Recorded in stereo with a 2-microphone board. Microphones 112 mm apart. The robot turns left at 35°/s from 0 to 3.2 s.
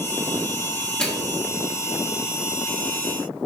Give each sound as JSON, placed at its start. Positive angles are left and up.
{"t": 1.0, "sound": "a microwave", "side_deg": 5, "distance_m": 1.7}